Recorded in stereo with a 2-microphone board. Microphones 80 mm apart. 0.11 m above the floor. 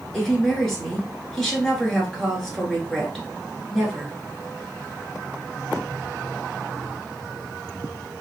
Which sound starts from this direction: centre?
A woman speaking, at 0.1 s.